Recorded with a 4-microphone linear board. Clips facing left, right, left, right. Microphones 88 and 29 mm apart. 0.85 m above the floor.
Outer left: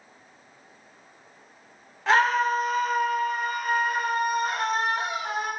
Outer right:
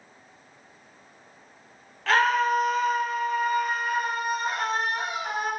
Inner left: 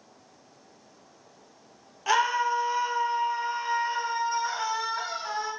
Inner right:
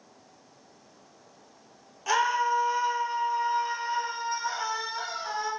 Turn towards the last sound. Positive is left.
turn(degrees=70)  # may be behind; listen again after turning